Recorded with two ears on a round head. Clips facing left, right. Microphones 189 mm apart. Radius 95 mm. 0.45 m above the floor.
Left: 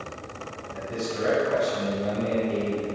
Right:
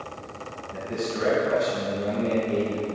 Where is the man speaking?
30° right (ahead or behind), 3.5 m.